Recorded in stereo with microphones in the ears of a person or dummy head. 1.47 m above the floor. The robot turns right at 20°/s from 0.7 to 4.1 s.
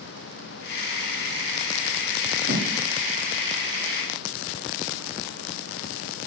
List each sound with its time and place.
2.5 s a thud: 50° right (ahead or behind), 2 m; by 2.7 s 55° right (ahead or behind), 2 m